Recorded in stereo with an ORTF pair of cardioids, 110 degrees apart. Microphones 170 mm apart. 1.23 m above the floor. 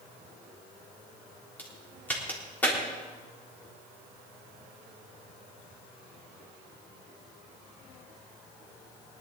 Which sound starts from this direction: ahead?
A crack, at 1.6 s.